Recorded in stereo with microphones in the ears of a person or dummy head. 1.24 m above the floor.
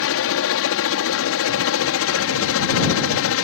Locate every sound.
0.0 s a helicopter: 65° left (ahead or behind); by 3.4 s 60° left (ahead or behind)